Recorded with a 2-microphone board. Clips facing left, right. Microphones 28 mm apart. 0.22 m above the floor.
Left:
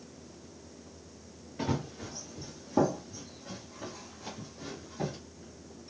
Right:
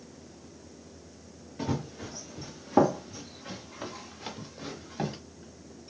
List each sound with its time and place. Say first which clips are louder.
1.6 s running footsteps: even; 10° left (ahead or behind), 0.8 m; by 5.2 s 85° right, 2.5 m